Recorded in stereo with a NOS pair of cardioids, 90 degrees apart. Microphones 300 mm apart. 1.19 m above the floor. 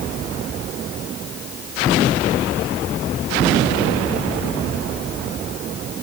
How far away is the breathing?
No breathing in this recording.